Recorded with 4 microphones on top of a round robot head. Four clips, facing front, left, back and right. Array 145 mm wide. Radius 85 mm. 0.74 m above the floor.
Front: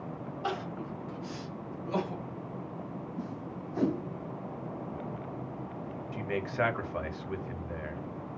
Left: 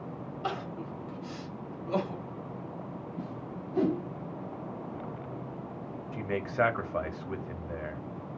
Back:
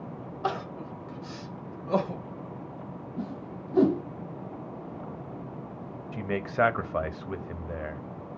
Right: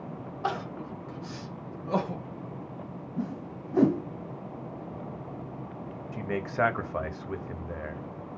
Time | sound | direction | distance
0.4 | crying | 140° right | 1.3 m
3.2 | a whoosh | 125° right | 0.8 m
6.1 | a man speaking | 165° right | 1.0 m